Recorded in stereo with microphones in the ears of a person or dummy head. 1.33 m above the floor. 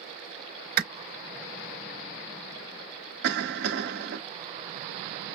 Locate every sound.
0.8 s a clap: 45° right (ahead or behind), 4 m
3.2 s a cough: 55° right (ahead or behind), 1.6 m